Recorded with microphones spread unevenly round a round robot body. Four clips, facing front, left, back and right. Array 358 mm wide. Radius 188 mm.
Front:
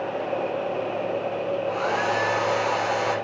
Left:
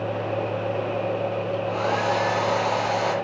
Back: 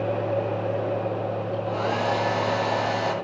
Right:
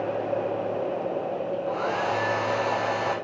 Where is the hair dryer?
170° left, 10 m.